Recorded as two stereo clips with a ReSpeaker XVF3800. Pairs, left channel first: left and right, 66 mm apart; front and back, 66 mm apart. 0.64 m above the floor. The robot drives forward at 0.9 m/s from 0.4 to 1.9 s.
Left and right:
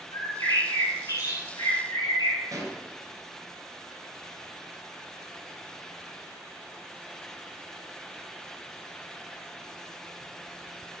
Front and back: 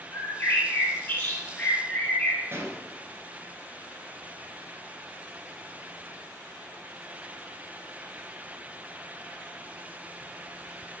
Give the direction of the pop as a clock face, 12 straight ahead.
4 o'clock.